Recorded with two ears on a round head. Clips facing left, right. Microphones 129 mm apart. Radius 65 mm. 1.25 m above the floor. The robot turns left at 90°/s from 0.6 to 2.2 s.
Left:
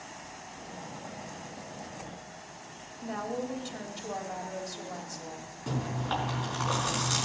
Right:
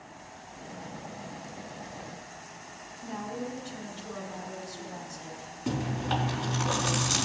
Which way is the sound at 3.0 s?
80° left.